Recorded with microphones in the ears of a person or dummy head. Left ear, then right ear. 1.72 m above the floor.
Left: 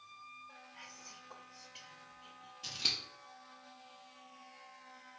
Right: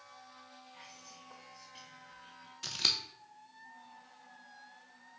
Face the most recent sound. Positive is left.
turn(degrees=-45)  # may be behind; listen again after turning